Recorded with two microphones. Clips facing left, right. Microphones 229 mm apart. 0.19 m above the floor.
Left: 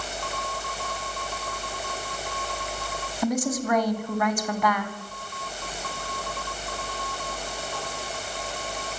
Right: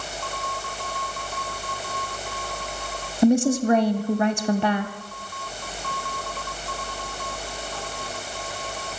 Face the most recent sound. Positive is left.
turn(degrees=-30)  # may be behind; listen again after turning